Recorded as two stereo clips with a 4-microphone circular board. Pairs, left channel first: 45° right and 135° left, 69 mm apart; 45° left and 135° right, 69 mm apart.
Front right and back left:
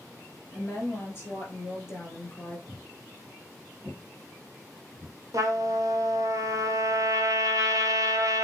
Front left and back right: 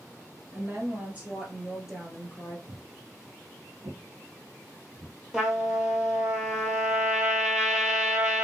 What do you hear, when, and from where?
0.5 s a woman speaking: 90° right, 2 m; by 2.6 s 35° right, 1.8 m
2.7 s footsteps: 165° right, 0.9 m; by 5.2 s 145° right, 2.5 m
5.3 s a trumpet: 145° left, 1.0 m